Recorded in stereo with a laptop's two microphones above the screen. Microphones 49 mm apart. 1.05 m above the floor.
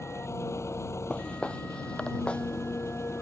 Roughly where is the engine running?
Left.